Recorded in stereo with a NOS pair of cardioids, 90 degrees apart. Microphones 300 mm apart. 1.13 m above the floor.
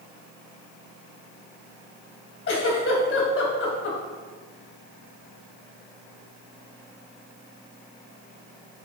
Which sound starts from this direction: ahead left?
A giggle, at 2.5 s.